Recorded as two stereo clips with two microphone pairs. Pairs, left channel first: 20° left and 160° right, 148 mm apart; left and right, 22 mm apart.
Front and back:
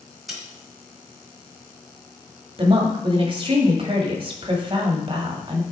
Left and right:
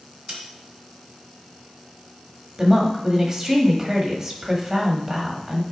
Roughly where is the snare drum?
Right.